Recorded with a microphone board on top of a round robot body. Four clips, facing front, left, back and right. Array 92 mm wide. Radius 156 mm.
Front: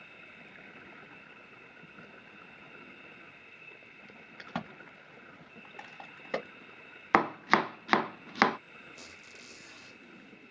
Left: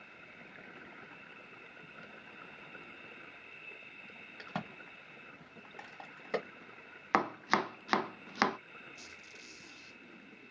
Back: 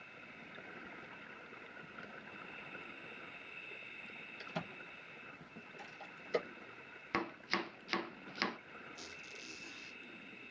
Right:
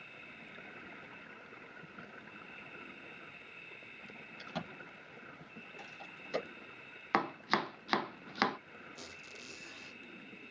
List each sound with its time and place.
4.4 s a crack: 35° left, 1.6 m
7.1 s chopping: 10° left, 0.6 m
8.9 s a squeak: 45° right, 1.2 m